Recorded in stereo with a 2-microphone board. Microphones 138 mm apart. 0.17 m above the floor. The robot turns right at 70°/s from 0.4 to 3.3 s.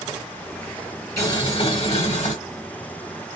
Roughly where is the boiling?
Ahead left.